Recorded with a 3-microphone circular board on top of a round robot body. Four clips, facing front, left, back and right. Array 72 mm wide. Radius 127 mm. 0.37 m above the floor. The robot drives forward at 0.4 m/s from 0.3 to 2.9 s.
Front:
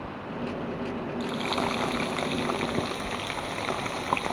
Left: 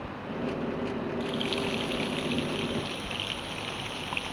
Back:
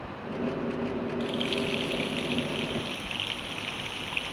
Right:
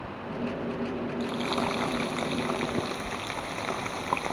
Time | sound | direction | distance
1.2 | frying | 30° right | ?